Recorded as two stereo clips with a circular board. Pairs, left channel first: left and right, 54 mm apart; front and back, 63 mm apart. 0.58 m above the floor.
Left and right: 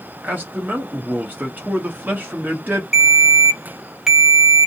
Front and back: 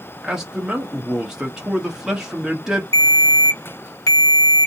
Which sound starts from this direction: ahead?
A ringtone, at 2.9 s.